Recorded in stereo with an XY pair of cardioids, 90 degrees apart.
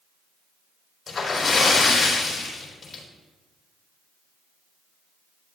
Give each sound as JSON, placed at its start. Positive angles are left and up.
{"t": 1.1, "sound": "a splash", "azimuth_deg": 60, "distance_m": 4.0}